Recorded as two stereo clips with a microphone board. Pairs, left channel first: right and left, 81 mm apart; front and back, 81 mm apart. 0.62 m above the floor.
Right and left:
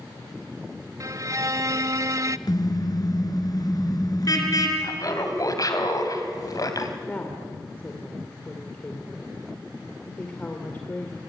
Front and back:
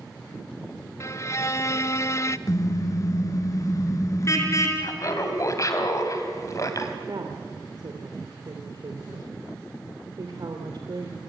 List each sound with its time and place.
1.0 s a violin: 50° left, 0.6 m
2.5 s a car horn: 50° right, 4 m
4.8 s laughter: 45° right, 3.5 m
7.1 s a woman speaking: 155° right, 2.5 m